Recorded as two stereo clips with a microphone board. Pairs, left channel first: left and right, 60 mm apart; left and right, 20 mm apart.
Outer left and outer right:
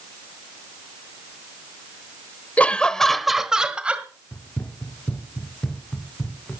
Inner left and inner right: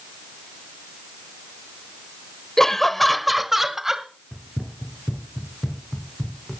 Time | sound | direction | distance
2.6 | laughter | 25° left (ahead or behind) | 1.1 m
4.3 | running footsteps | 35° left (ahead or behind) | 2 m